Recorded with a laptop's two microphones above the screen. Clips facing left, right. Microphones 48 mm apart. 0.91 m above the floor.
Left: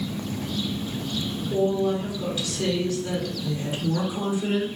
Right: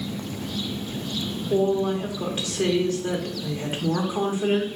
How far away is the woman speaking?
About 0.7 m.